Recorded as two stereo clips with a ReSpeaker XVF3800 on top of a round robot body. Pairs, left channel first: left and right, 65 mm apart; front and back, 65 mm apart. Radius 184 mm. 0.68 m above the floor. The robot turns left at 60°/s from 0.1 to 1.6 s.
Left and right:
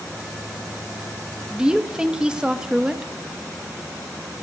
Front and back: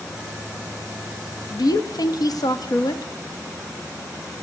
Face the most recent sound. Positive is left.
turn(degrees=-15)